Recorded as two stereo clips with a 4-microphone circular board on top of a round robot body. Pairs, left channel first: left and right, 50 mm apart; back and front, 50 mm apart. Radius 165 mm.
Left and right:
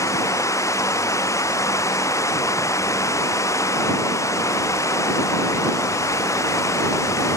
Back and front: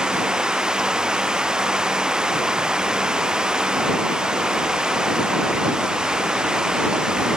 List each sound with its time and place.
0.0 s running water: 75° left